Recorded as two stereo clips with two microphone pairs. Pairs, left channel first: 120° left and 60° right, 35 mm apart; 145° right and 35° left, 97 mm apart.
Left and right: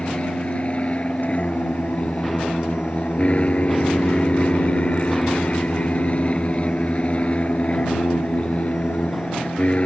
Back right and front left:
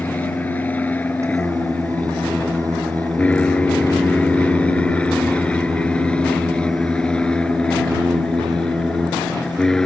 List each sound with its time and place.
0.0 s an aircraft: 155° left; by 9.9 s 135° left
1.2 s singing: 95° left